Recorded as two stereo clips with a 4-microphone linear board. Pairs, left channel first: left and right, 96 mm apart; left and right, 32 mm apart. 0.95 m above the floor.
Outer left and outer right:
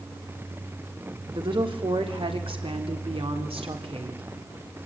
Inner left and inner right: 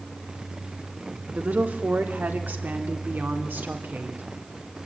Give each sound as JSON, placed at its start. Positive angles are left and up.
{"t": 1.4, "sound": "a woman speaking", "side_deg": -60, "distance_m": 3.0}